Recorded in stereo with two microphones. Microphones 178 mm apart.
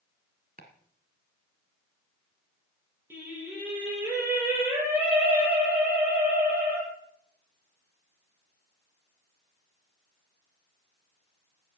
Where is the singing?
10° right (ahead or behind), 8 m.